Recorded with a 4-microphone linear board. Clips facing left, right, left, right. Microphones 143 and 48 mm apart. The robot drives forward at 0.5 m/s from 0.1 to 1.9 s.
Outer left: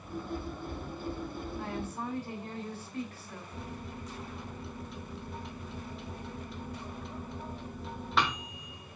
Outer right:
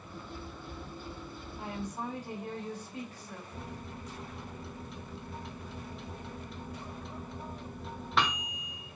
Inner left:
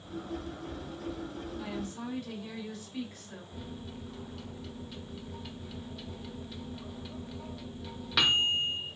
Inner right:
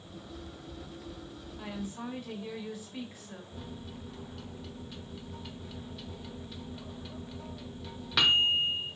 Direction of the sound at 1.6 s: 15° right (ahead or behind).